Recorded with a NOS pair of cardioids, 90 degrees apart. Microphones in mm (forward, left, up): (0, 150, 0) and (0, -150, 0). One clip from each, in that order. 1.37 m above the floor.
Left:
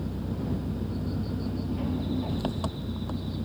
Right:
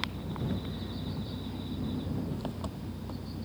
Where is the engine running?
50° left.